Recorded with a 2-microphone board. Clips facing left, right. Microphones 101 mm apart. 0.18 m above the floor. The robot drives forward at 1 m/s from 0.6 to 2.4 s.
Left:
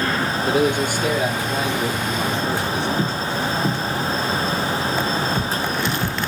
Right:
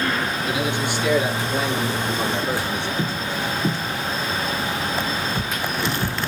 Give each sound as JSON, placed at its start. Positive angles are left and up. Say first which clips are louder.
{"t": 0.5, "sound": "a man speaking", "louder": "left 9 dB", "side_deg": 45, "distance_m": 3.5}